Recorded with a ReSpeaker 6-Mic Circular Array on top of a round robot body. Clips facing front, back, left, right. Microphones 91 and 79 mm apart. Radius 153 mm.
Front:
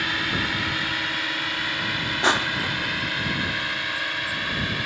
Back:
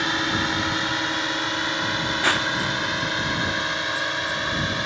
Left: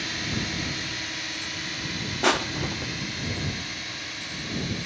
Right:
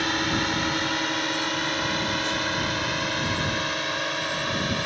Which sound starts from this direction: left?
Crushing, at 2.2 s.